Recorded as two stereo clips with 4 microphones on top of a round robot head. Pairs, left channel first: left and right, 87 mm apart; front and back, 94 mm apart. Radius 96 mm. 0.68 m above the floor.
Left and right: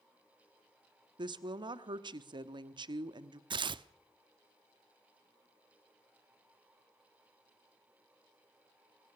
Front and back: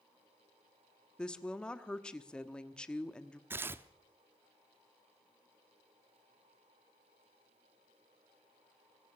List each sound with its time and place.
1.2 s a woman speaking: 80° right, 1.2 m
3.5 s tearing paper: 115° right, 0.6 m